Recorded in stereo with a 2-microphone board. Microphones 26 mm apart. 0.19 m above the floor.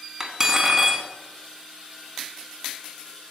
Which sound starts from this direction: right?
Cutlery clinking, at 0.2 s.